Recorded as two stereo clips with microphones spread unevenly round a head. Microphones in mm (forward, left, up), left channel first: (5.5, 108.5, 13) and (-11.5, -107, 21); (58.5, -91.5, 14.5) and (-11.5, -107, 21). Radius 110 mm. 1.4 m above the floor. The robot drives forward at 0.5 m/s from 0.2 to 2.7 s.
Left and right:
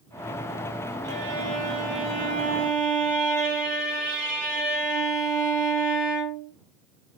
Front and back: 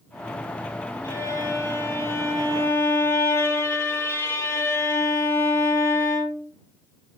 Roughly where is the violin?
Ahead right.